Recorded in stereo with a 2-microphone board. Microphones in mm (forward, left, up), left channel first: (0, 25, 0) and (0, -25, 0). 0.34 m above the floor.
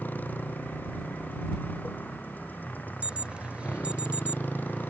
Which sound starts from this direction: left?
A motorcycle, at 0.0 s.